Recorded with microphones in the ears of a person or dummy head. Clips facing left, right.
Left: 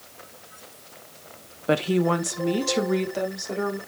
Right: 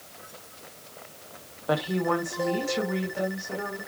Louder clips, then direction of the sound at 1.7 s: Left 4 dB; 30° left (ahead or behind).